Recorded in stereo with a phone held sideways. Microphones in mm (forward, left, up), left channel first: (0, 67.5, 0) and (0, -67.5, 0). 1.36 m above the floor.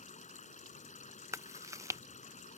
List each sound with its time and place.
0.0 s running water: 60° left (ahead or behind)
1.3 s chewing: 20° right (ahead or behind)